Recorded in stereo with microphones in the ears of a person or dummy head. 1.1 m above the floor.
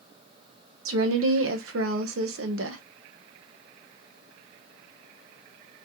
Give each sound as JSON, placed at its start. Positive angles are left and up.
{"t": 0.8, "sound": "a woman speaking", "side_deg": -65, "distance_m": 0.6}